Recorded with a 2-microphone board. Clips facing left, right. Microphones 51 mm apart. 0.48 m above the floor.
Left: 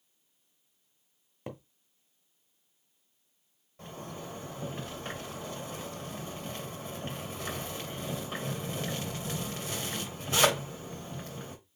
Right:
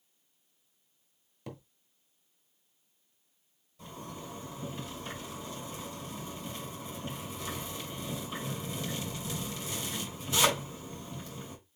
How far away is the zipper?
About 2.5 m.